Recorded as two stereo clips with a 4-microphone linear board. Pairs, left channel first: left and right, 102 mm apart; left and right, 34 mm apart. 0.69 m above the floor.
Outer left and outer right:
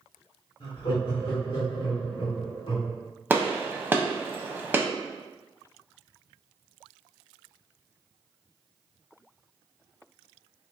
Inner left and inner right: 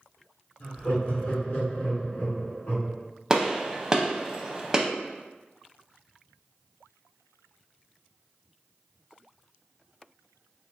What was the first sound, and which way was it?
Laughter, 60° left (ahead or behind).